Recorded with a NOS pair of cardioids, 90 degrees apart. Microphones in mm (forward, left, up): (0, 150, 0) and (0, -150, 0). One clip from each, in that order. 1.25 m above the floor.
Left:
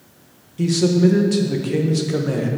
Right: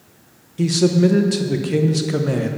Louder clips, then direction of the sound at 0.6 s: Right 1 dB; 20° right.